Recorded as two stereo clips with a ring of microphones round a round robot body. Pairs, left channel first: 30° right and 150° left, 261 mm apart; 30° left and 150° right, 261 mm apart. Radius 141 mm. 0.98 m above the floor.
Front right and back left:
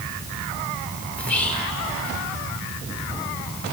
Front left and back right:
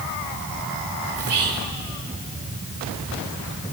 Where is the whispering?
115° right, 4 m.